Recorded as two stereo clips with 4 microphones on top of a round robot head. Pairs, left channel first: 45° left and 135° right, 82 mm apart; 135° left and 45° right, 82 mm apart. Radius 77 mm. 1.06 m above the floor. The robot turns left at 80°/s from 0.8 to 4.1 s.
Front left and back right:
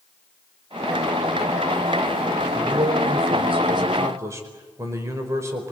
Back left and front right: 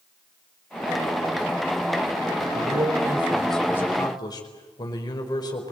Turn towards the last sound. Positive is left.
turn(degrees=170)